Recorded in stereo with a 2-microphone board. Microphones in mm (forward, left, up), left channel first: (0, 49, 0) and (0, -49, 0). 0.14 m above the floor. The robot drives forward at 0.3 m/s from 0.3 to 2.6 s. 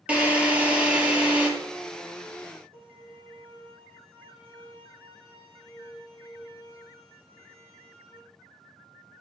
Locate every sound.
0.1 s a drill: 10° right (ahead or behind), 3 m
2.7 s a violin: 75° right (ahead or behind), 8 m